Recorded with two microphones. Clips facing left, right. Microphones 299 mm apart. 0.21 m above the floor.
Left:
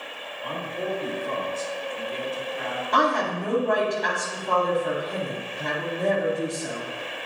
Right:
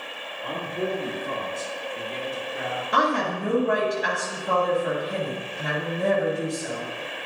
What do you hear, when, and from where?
0.4 s a man speaking: 50° right (ahead or behind), 3 m; by 2.8 s 70° right (ahead or behind), 3.5 m
2.9 s a woman speaking: 10° right (ahead or behind), 1.3 m